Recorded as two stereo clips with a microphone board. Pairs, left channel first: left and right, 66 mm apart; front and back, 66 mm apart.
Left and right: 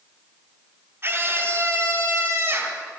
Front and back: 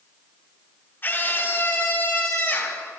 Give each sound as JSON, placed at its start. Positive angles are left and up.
{"t": 1.0, "sound": "a scream", "azimuth_deg": -50, "distance_m": 2.5}